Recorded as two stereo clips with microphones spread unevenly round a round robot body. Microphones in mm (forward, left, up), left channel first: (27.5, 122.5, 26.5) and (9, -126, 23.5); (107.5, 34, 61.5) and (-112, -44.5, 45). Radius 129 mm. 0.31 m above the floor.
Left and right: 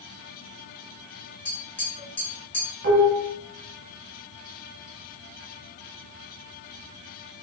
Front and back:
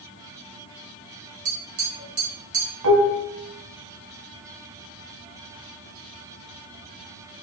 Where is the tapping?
170° left, 2.5 m.